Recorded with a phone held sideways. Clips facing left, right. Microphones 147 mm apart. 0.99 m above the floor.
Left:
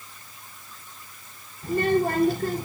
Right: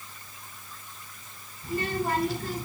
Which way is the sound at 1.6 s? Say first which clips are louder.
Left 7 dB; 60° left (ahead or behind).